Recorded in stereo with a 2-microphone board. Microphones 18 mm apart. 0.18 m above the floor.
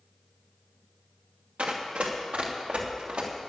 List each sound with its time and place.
1.6 s running footsteps: 85° right, 2.5 m